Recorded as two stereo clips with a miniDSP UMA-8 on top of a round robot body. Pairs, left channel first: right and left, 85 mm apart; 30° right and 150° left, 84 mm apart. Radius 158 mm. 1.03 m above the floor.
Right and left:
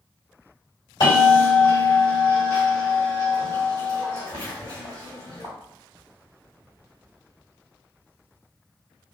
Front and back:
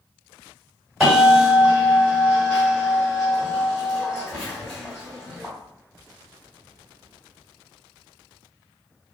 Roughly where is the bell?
Behind right.